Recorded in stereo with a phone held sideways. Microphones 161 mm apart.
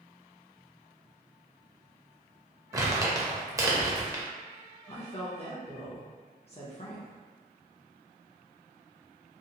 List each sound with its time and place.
2.7 s crumpling: 20° right (ahead or behind), 0.6 m
4.9 s a woman speaking: 40° left (ahead or behind), 0.5 m